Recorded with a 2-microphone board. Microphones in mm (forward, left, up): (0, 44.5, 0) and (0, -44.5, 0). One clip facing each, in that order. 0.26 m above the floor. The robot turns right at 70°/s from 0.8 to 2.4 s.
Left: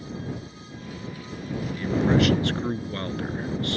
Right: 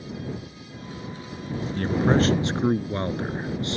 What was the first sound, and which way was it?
A man speaking, 70° right.